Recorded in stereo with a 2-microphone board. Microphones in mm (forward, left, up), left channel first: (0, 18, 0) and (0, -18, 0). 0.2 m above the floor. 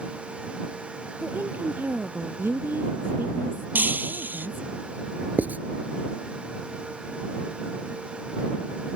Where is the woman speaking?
75° right (ahead or behind).